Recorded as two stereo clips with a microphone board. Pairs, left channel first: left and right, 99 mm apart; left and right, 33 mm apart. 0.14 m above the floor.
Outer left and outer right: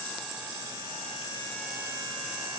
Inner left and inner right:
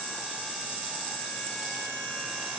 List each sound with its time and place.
Only background noise.